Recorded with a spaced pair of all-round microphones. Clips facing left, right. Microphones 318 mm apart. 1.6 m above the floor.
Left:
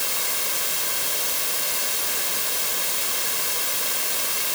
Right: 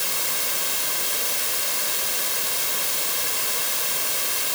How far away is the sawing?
I don't hear sawing.